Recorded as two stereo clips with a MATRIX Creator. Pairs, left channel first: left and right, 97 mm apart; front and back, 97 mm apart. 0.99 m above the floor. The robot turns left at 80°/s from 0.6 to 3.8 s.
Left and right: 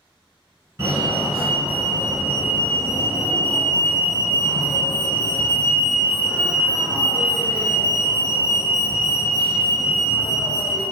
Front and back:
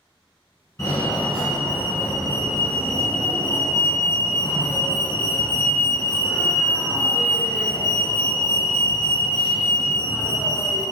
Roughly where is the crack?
No crack in this recording.